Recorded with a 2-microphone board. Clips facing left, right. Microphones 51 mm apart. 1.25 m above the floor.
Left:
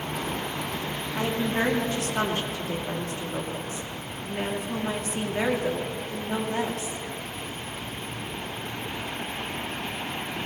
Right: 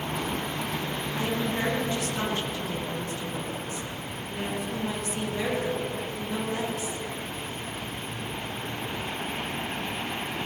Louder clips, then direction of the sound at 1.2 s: Left 3 dB; 50° left (ahead or behind).